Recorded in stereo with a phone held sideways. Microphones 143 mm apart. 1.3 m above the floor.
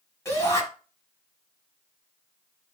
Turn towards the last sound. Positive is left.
turn(degrees=20)  # may be behind; listen again after turning